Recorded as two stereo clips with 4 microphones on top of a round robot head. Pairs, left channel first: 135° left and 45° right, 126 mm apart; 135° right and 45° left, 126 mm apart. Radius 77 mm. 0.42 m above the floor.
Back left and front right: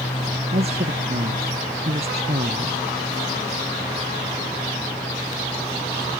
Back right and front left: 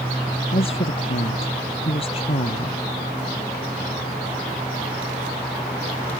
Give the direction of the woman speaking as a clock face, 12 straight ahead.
3 o'clock.